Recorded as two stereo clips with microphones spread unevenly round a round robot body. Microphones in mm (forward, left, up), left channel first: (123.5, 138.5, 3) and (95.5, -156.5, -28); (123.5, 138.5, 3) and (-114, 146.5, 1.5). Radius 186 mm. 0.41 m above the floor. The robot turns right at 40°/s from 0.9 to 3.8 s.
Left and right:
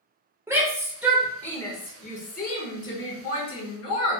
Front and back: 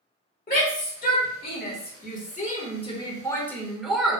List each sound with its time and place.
0.5 s a shout: 25° right, 1.2 m; by 4.2 s 90° left, 1.2 m